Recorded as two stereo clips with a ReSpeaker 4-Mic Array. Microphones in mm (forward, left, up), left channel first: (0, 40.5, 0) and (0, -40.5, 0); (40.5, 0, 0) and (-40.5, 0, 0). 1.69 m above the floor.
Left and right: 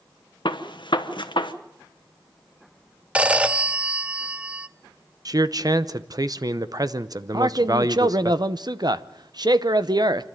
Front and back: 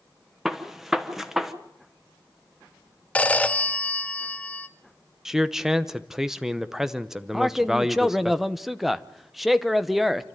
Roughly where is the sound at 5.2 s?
Right.